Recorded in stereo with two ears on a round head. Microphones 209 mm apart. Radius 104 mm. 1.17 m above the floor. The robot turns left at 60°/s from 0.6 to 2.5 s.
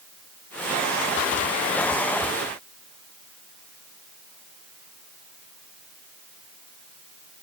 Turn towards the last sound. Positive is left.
No sound to turn to.